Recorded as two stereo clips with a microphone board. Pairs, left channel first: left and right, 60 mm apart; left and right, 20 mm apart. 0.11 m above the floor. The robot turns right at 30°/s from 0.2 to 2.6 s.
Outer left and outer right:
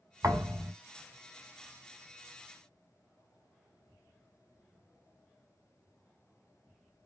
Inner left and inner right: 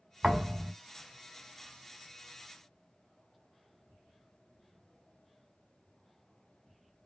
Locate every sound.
0.2 s a thud: 65° right (ahead or behind), 1.8 m; by 0.7 s 80° right, 1.8 m